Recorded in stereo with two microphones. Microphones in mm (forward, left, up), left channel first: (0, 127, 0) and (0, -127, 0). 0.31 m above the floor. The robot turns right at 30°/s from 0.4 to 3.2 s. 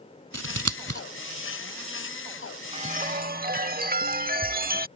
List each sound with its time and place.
0.3 s scissors: 80° right; by 1.0 s 70° right (ahead or behind)
2.7 s a chime: 25° right (ahead or behind); by 4.9 s 35° right (ahead or behind)